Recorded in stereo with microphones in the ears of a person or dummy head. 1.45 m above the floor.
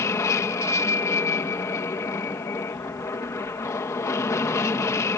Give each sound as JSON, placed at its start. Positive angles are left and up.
{"t": 0.0, "sound": "an aircraft", "side_deg": 15}